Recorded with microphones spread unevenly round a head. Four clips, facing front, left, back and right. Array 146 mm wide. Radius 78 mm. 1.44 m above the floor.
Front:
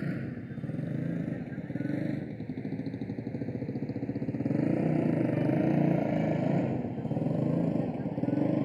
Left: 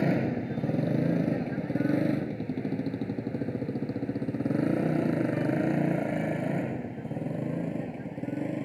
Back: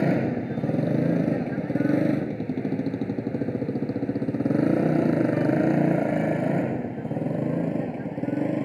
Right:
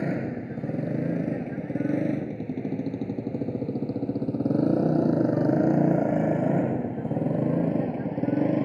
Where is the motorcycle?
175° right; by 8.7 s 125° right.